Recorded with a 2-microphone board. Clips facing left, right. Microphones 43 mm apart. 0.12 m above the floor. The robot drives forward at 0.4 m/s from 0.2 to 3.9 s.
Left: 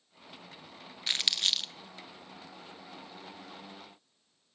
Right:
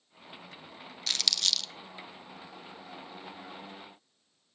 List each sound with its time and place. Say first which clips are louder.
1.1 s crumpling: left 1 dB; 20° left (ahead or behind), 0.7 m; by 1.7 s 25° left (ahead or behind), 0.6 m